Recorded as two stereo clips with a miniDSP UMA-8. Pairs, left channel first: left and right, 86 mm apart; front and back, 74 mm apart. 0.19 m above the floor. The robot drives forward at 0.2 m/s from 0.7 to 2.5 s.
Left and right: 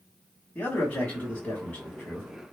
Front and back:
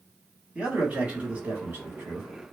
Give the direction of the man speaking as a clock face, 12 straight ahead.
8 o'clock.